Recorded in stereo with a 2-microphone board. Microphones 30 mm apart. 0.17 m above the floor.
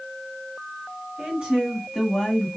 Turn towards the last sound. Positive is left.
turn(degrees=10)  # may be behind; listen again after turning